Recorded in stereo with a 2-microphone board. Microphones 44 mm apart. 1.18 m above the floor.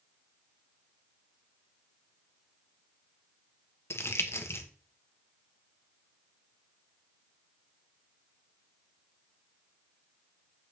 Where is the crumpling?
75° left (ahead or behind), 1.2 m.